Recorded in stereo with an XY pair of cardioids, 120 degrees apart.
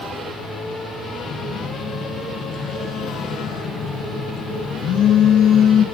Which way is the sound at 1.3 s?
65° left.